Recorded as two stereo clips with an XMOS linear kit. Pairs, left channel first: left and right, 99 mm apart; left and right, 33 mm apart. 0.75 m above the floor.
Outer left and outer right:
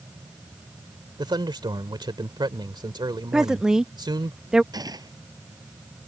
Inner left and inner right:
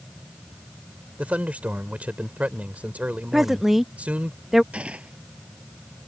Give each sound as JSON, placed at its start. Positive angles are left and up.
{"t": 1.2, "sound": "a man speaking", "side_deg": -50}
{"t": 3.3, "sound": "a woman speaking", "side_deg": -5}
{"t": 4.7, "sound": "a gunshot", "side_deg": -40}